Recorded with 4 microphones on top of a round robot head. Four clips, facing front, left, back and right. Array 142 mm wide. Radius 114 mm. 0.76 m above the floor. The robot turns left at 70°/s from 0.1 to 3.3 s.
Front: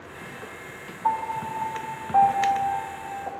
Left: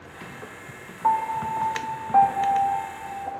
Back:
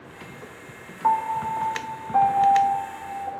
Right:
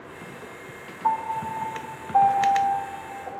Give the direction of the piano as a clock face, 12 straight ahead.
7 o'clock.